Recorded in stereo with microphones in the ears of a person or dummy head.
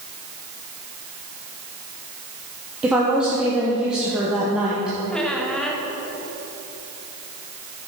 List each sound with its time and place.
2.8 s a woman speaking: 5° right (ahead or behind), 1.1 m
5.1 s a squeak: 5° left (ahead or behind), 0.9 m